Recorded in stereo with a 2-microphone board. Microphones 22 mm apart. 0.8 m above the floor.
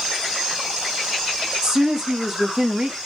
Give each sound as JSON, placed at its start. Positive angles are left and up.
{"t": 1.6, "sound": "a woman speaking", "side_deg": -25, "distance_m": 1.6}